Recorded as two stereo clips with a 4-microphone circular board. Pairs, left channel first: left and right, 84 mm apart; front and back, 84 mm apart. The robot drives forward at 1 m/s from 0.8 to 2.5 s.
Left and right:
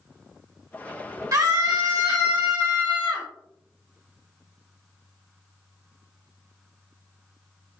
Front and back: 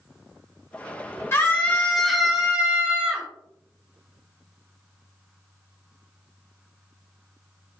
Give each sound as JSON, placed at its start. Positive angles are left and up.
{"t": 1.3, "sound": "a scream", "azimuth_deg": -55, "distance_m": 1.5}